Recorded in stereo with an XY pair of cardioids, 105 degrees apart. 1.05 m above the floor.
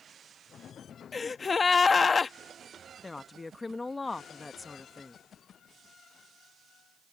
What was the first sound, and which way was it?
A gasp, 30° left.